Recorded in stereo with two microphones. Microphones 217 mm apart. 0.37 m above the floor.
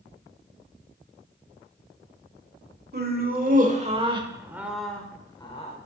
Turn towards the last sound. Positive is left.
turn(degrees=30)  # may be behind; listen again after turning